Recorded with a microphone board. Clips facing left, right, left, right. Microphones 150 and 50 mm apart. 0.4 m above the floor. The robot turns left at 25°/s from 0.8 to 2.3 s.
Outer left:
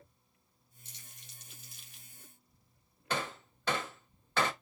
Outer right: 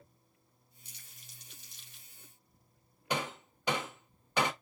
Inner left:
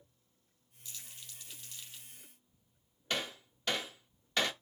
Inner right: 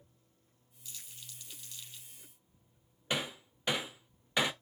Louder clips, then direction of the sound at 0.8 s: Outer left 3 dB, even; 10° right (ahead or behind).